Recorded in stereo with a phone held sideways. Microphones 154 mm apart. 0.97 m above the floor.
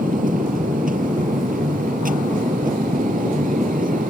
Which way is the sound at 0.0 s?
65° right (ahead or behind).